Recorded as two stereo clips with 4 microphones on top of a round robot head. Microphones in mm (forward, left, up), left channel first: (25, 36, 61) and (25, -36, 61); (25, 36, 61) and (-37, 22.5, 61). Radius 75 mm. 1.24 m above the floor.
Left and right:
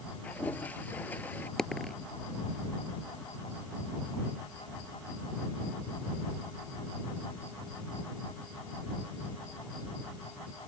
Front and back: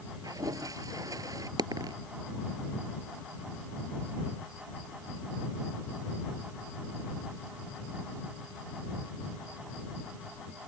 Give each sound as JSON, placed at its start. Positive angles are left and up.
{"t": 0.2, "sound": "a toilet flushing", "azimuth_deg": 165}
{"t": 1.6, "sound": "a dropped coin", "azimuth_deg": 175}